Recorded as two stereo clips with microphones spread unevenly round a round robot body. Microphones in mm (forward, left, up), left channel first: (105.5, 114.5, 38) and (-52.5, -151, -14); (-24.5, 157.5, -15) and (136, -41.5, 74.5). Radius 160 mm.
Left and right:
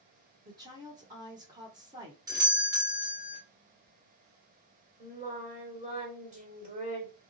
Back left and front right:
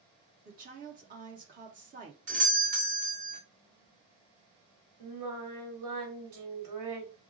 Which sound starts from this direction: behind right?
A woman speaking, at 0.5 s.